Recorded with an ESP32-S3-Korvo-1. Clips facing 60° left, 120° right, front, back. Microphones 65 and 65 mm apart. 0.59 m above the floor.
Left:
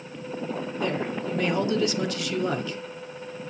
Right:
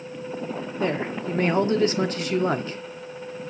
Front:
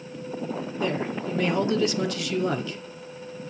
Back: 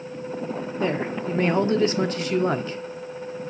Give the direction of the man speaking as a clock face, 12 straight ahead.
5 o'clock.